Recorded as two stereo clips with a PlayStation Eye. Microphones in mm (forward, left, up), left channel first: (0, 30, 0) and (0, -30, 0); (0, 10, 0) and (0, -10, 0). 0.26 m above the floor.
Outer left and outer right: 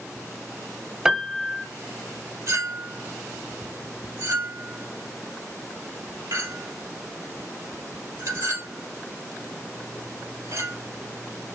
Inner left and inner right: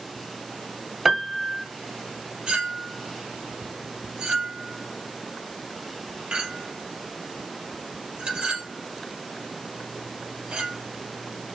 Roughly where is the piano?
Centre.